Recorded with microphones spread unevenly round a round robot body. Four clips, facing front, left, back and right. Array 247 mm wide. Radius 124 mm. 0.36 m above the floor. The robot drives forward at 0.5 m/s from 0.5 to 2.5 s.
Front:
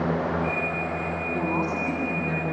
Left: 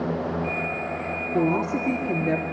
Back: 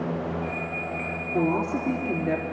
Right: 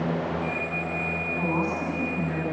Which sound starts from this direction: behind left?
A woman speaking, at 1.3 s.